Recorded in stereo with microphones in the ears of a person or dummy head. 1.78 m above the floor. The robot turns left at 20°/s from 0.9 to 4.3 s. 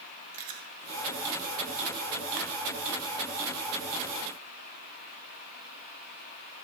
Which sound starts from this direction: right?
Chewing, at 0.3 s.